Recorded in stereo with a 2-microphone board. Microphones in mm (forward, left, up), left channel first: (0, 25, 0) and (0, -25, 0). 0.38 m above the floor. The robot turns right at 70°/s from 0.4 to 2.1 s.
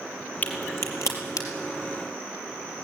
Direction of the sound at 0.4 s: 30° left (ahead or behind).